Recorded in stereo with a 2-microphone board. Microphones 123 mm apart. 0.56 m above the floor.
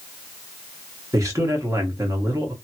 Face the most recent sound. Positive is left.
turn(degrees=-25)  # may be behind; listen again after turning